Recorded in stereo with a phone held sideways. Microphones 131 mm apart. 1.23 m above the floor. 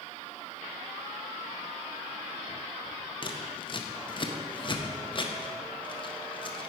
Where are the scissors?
35° left (ahead or behind), 0.5 m.